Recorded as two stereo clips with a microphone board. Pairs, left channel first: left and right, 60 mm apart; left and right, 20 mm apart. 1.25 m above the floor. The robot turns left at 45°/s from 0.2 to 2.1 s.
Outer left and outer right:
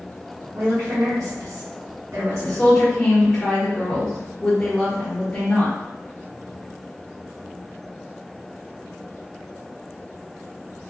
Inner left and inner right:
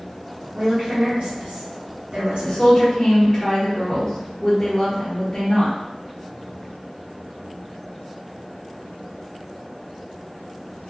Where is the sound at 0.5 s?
40° right (ahead or behind), 1.7 m; by 2.8 s 65° right (ahead or behind), 1.7 m.